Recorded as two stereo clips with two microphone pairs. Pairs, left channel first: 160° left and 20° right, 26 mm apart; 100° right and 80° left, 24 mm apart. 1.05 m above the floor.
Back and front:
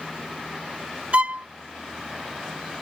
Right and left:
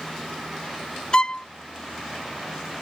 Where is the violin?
50° right.